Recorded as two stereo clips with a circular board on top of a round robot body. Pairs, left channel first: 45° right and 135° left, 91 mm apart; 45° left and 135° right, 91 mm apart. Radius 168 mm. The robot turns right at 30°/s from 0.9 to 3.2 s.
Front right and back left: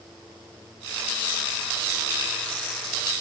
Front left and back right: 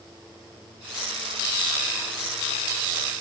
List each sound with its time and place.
Only background noise.